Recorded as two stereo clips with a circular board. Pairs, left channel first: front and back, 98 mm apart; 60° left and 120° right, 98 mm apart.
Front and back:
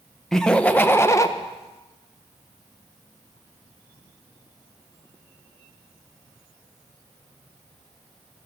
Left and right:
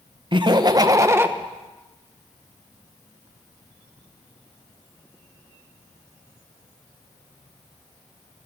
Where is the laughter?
85° right, 1.1 m; by 1.3 s 55° right, 1.0 m.